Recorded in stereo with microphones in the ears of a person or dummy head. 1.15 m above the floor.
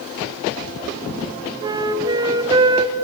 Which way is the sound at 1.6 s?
25° right (ahead or behind).